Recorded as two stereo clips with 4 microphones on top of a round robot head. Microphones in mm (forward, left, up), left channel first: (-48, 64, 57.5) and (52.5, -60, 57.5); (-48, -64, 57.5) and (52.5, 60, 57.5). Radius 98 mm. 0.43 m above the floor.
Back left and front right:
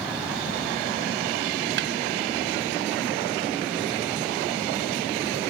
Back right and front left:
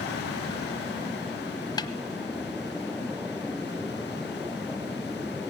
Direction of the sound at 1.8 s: 60° right.